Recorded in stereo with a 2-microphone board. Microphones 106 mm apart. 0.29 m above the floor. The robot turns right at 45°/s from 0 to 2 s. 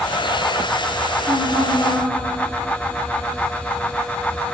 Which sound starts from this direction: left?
A woman speaking, at 1.2 s.